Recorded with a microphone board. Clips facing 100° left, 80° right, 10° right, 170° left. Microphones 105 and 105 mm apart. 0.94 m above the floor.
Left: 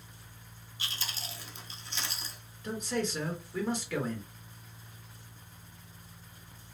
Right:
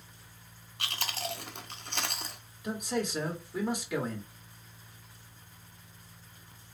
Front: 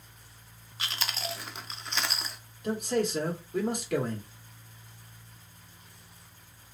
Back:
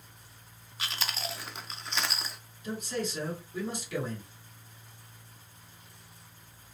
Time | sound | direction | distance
0.8 | chewing | 100° right | 0.6 m
2.6 | a man speaking | 5° right | 1.2 m